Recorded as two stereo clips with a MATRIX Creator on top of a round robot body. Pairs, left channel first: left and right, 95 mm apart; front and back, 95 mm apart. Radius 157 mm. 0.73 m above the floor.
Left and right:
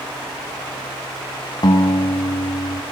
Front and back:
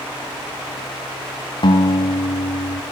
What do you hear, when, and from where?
1.6 s a guitar: 40° left, 2 m